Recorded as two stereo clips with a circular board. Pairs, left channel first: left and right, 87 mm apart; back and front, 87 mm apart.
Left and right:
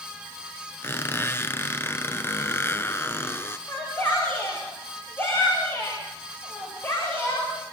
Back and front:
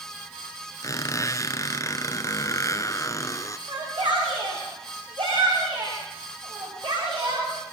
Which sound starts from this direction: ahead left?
A shout, at 3.7 s.